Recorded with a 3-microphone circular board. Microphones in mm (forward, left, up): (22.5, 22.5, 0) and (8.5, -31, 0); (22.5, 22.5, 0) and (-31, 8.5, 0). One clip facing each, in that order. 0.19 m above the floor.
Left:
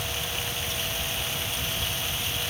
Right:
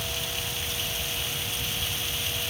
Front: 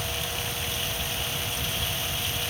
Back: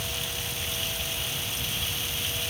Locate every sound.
Only background noise.